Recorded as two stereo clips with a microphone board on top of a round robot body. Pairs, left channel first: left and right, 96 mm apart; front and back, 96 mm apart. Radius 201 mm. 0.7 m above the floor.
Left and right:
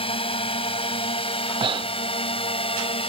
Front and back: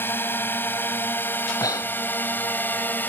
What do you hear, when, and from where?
0.0 s a drone: 70° left
1.6 s breathing: 55° right